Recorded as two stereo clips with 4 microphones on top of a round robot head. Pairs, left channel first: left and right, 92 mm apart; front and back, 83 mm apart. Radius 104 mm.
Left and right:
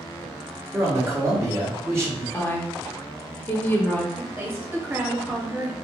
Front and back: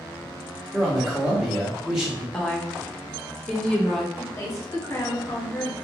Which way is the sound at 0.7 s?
100° right.